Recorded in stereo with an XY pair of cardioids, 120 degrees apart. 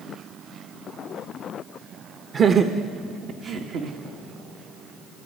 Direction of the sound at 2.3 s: 40° right.